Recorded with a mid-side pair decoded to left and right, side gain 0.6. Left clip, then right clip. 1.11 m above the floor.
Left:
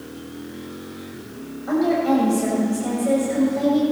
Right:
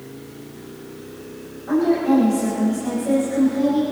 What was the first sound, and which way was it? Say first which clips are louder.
A woman speaking: right 1 dB; 25° left.